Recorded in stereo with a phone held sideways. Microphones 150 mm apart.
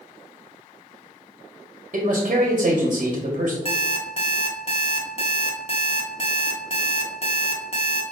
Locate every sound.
1.9 s a man speaking: 55° right (ahead or behind), 0.8 m
3.6 s an alarm clock: 40° left (ahead or behind), 0.9 m